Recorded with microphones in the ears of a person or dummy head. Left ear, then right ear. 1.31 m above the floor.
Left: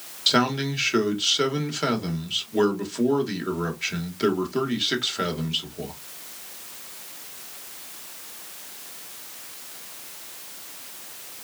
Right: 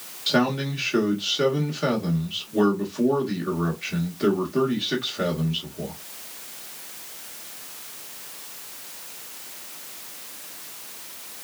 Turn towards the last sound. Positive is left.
turn(degrees=25)  # may be behind; listen again after turning